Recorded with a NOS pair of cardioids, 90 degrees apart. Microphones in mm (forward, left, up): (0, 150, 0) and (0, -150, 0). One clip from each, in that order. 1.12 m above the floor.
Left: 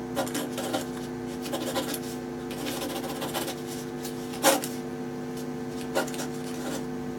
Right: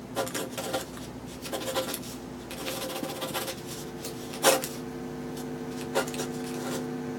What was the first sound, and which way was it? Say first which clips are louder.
Writing: even; 5° right.